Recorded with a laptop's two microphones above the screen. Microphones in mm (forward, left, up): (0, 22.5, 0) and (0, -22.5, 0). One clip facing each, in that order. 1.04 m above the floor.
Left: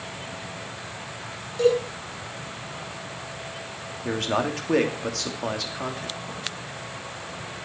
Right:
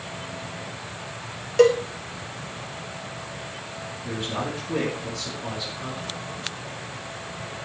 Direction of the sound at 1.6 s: 70° right (ahead or behind).